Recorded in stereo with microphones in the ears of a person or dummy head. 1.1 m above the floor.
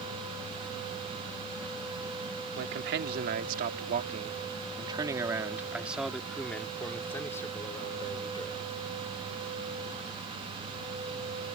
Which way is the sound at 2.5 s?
60° right (ahead or behind).